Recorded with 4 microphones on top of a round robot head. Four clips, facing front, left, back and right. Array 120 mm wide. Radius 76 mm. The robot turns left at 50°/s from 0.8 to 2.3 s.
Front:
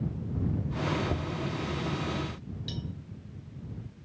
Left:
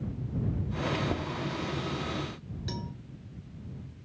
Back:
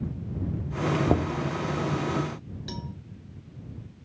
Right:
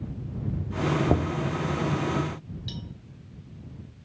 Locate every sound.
1.1 s knocking: 140° right; by 1.5 s 160° right
2.7 s a cowbell: 140° left